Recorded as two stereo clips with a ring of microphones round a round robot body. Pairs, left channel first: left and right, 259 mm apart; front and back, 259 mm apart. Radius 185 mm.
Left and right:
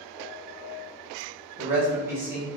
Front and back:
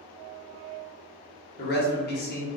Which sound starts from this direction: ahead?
A man speaking, at 1.6 s.